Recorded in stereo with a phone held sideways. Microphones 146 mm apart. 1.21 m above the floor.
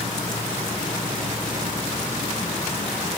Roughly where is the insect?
Left.